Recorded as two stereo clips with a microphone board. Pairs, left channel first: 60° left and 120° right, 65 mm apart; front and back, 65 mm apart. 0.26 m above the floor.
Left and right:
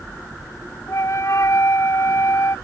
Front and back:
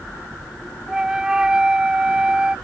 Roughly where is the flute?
Left.